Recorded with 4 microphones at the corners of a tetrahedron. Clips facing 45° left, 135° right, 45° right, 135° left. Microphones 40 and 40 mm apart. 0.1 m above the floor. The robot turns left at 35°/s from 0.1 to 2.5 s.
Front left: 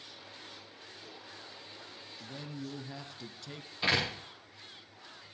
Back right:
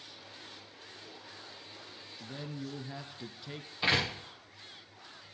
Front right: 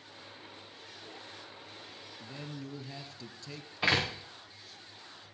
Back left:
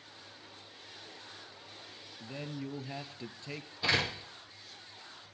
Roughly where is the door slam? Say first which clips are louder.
Back right 1 dB, front right 2 dB; ahead right.